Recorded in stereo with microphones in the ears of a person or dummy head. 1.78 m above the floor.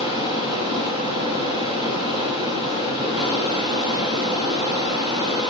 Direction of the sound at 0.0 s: 15° right (ahead or behind).